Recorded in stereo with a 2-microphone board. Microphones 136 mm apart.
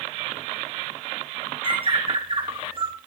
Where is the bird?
40° right (ahead or behind), 3.5 m.